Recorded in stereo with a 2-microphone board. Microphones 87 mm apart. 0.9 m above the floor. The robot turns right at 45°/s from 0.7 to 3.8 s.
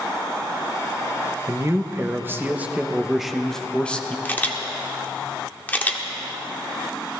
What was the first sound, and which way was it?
A man speaking, 85° right.